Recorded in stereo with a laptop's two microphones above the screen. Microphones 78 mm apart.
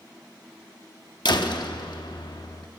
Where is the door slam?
65° left (ahead or behind), 1.0 m.